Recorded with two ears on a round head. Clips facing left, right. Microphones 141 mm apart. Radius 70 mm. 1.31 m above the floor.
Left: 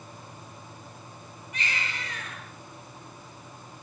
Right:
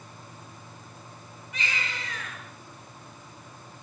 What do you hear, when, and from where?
1.5 s a baby crying: 70° right (ahead or behind), 9 m